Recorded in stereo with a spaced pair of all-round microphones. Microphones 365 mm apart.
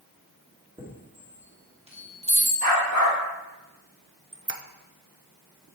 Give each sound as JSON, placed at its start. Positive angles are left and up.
{"t": 0.8, "sound": "a chime", "side_deg": -15, "distance_m": 2.0}
{"t": 2.6, "sound": "a dog barking", "side_deg": -65, "distance_m": 3.0}
{"t": 4.3, "sound": "a squeak", "side_deg": -35, "distance_m": 0.7}